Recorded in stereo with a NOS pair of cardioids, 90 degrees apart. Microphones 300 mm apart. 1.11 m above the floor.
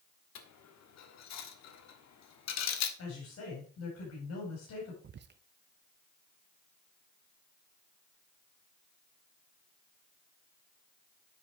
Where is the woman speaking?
55° left, 5 m.